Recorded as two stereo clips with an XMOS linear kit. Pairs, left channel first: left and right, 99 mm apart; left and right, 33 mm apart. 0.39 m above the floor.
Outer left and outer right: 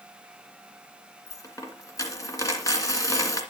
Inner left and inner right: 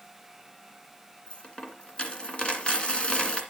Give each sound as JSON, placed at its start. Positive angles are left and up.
{"t": 1.3, "sound": "a dropped coin", "side_deg": 35, "distance_m": 2.0}